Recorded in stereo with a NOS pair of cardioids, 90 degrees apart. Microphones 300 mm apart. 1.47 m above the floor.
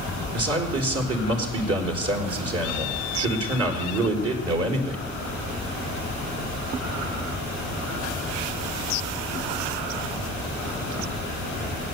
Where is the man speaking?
50° right, 4.5 m.